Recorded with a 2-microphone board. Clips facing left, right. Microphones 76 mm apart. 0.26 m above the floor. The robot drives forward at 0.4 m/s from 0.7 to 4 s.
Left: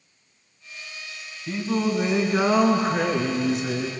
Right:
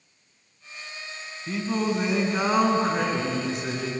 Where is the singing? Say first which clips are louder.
Left 2 dB; centre (ahead or behind), 2.5 m.